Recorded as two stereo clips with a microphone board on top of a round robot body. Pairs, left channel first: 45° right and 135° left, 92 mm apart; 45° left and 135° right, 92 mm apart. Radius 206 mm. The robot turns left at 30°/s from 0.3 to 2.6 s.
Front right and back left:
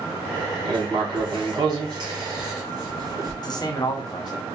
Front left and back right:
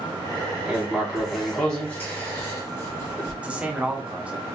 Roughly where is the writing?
Behind left.